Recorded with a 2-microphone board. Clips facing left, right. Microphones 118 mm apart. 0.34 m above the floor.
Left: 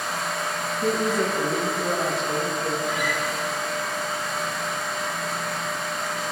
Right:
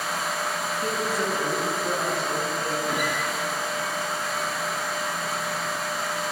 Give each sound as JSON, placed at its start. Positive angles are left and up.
{"t": 0.8, "sound": "a woman speaking", "side_deg": 25, "distance_m": 7.5}
{"t": 2.9, "sound": "a guitar", "side_deg": -50, "distance_m": 7.0}